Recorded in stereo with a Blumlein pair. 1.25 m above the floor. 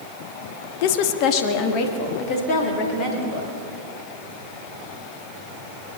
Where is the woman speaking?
45° left, 1.0 m; by 3.5 s 35° left, 4.5 m.